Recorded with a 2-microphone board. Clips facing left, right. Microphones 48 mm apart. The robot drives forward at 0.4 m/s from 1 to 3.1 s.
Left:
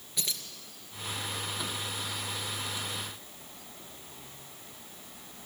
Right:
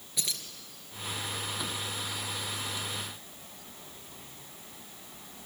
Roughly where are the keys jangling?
Centre.